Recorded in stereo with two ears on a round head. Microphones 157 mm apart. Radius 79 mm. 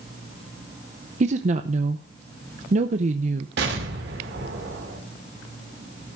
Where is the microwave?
No microwave in this recording.